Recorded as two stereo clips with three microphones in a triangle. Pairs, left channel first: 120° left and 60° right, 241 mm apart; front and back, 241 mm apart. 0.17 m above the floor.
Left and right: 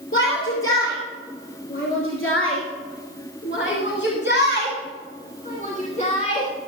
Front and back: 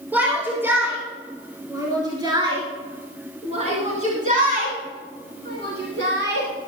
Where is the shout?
100° left, 4 m; by 6.5 s straight behind, 2.5 m.